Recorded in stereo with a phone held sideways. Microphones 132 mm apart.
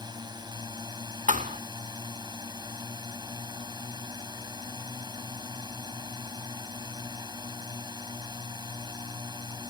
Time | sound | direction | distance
0.0 | a drone | 30° right (ahead or behind) | ?
1.3 | a thud | 70° right (ahead or behind) | ?